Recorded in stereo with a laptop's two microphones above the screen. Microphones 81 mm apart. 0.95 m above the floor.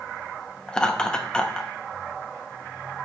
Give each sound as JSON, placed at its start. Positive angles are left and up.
{"t": 0.7, "sound": "laughter", "side_deg": 10, "distance_m": 1.3}